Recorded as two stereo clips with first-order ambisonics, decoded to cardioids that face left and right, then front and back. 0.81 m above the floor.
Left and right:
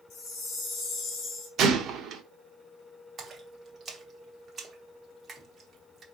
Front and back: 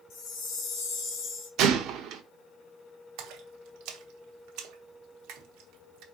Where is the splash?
160° right, 0.9 m.